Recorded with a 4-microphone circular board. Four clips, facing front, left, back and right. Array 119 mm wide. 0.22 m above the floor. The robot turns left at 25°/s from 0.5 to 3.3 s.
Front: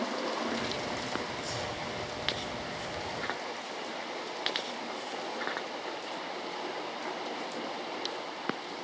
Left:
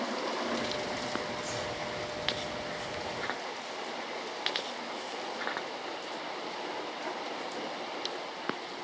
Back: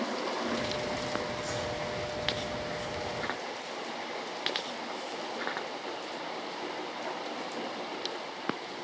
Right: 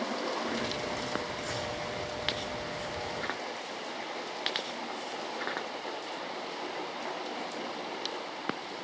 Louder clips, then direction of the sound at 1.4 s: Even, back 2 dB; 125° right.